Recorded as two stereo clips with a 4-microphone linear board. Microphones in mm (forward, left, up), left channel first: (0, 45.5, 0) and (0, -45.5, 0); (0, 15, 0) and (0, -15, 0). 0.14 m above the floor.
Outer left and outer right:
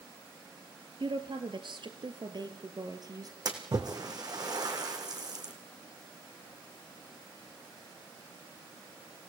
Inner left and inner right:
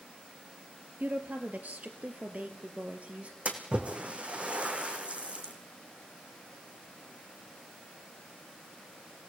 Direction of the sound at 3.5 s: 45° right (ahead or behind).